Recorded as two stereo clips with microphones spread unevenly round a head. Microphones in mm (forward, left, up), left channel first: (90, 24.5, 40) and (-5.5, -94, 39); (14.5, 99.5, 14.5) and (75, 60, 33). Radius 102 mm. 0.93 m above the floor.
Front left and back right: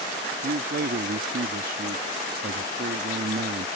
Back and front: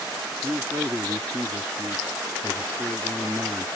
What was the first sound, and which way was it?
A man speaking, 105° right.